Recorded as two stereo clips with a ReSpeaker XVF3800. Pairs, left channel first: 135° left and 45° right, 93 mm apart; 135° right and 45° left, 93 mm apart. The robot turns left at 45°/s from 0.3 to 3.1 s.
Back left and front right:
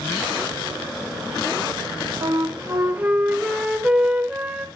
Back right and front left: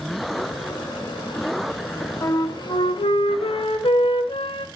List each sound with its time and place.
2.2 s a flute: 80° right, 1.1 m; by 4.7 s 120° right, 1.1 m